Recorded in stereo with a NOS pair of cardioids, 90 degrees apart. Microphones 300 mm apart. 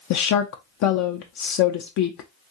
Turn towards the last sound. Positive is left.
turn(degrees=70)